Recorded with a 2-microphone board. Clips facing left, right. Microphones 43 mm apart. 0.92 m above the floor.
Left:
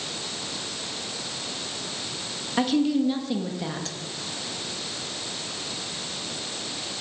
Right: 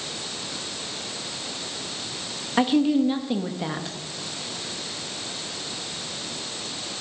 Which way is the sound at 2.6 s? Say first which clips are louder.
Right 2 dB; 15° right (ahead or behind).